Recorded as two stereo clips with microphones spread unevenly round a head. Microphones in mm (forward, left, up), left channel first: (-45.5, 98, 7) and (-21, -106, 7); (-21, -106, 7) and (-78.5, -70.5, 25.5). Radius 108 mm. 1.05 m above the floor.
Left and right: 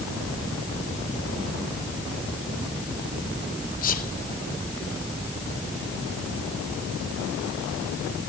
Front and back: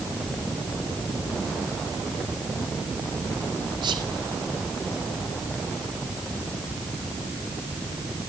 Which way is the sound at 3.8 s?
150° left.